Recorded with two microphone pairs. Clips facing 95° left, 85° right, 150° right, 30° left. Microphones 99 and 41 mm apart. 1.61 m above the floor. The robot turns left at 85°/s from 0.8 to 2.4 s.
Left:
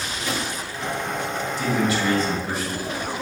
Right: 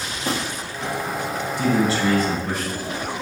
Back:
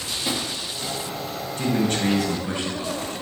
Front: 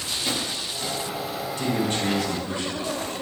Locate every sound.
0.1 s a drawer: 80° right, 1.2 m
1.6 s a man speaking: 115° right, 2 m; by 2.8 s 175° left, 2 m